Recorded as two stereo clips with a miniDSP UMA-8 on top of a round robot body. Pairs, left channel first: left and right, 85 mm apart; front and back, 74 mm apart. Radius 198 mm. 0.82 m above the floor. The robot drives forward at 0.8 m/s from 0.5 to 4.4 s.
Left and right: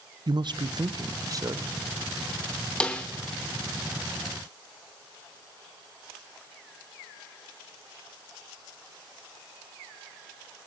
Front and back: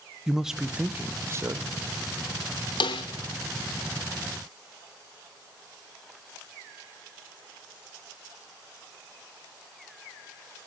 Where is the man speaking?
100° right, 1.2 m; by 1.8 s 140° right, 1.6 m.